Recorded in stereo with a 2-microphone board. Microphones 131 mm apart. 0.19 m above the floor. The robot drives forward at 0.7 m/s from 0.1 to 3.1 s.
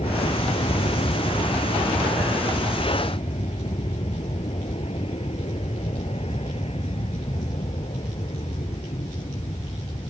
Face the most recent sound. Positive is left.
turn(degrees=45)  # may be behind; listen again after turning